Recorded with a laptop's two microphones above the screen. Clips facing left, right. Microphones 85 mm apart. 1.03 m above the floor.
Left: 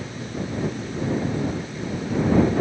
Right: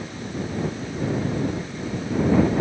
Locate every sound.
Only background noise.